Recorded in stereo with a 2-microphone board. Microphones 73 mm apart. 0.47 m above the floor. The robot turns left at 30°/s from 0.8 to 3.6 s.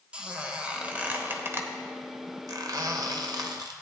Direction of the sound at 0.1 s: 15° right (ahead or behind).